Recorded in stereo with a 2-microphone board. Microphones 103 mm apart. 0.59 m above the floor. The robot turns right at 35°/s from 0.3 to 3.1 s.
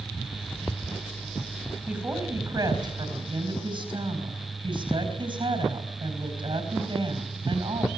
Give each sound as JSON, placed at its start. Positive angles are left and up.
{"t": 1.9, "sound": "a woman speaking", "azimuth_deg": -165, "distance_m": 4.5}